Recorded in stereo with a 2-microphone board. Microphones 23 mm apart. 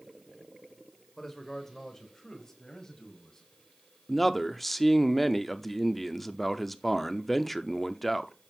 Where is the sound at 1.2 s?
15° left (ahead or behind), 1.5 m; by 3.5 s 25° left (ahead or behind), 3 m.